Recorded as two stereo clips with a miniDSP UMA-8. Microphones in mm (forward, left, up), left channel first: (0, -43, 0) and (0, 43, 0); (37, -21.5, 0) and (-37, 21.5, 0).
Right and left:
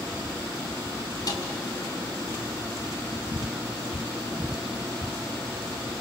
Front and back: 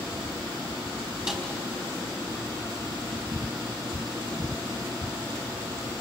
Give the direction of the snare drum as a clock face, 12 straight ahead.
4 o'clock.